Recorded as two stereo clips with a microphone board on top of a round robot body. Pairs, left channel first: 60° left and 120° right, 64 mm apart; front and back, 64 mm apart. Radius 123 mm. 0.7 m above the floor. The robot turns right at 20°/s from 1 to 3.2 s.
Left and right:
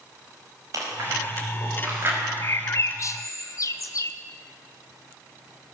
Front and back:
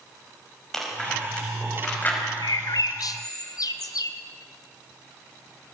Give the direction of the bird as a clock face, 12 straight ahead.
12 o'clock.